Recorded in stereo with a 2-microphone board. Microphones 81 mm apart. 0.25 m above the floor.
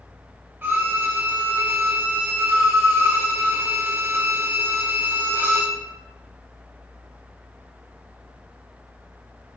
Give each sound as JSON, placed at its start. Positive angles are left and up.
{"t": 0.6, "sound": "a violin", "side_deg": -30, "distance_m": 0.5}